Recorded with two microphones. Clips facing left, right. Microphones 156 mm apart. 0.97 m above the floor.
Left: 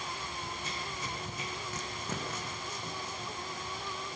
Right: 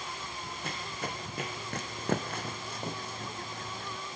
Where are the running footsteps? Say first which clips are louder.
Right 2 dB; 60° right (ahead or behind), 3 m.